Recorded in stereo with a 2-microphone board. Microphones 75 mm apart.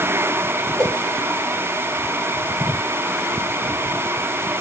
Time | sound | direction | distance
0.8 | a whoosh | 45° right (ahead or behind) | 2 m